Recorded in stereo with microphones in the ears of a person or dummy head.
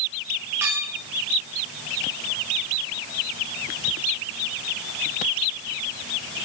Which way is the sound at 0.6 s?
10° right (ahead or behind).